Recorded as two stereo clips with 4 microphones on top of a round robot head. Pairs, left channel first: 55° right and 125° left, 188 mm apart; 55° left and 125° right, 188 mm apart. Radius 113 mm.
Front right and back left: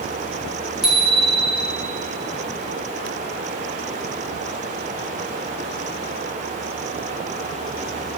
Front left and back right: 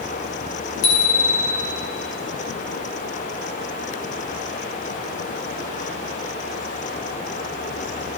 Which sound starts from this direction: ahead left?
A bicycle bell, at 0.8 s.